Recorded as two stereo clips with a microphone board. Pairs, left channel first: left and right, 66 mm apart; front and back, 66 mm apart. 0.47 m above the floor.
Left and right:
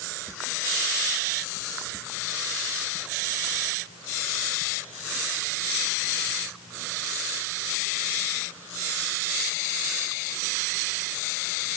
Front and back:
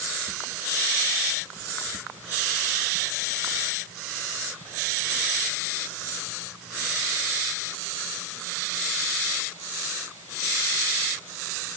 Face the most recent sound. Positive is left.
No sound to turn to.